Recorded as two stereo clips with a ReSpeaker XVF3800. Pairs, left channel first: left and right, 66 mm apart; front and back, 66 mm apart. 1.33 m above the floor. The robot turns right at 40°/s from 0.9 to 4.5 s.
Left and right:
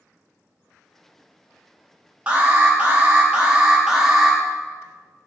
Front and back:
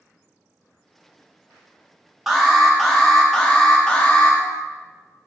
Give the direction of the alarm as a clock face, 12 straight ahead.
3 o'clock.